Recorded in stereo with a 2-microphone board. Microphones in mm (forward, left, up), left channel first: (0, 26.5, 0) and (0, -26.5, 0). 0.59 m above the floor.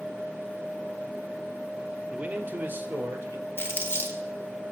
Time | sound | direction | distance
2.1 | a man speaking | 25° right (ahead or behind) | 0.7 m
3.6 | crumpling | 50° left (ahead or behind) | 1.7 m